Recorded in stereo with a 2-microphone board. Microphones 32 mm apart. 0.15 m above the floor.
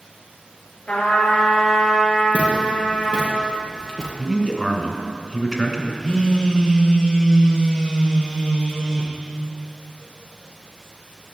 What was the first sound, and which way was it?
A trumpet, 55° left (ahead or behind).